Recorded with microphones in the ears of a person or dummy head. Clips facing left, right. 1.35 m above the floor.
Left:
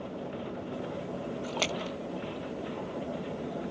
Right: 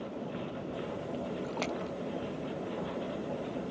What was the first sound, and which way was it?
A splash, 45° left (ahead or behind).